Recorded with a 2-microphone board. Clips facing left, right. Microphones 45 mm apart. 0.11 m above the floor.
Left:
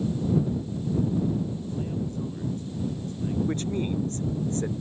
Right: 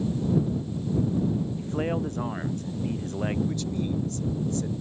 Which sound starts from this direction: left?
A man speaking, at 3.5 s.